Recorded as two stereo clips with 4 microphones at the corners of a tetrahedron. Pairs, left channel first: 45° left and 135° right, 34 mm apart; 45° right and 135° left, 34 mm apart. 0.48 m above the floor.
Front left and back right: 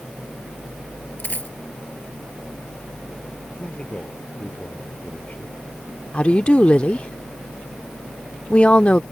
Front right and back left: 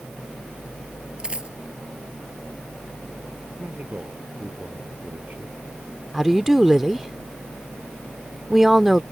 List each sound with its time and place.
1.2 s a dropped coin: 75° left
3.6 s a man speaking: 95° left
6.1 s a woman speaking: 60° left